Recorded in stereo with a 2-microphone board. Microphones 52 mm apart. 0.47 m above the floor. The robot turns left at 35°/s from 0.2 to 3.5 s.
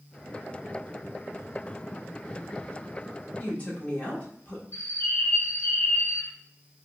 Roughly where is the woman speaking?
Left.